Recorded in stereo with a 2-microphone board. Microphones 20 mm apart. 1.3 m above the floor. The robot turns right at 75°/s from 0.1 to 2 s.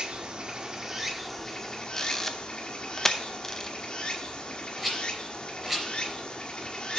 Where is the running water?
90° right, 1.5 m; by 7.0 s 55° left, 1.5 m.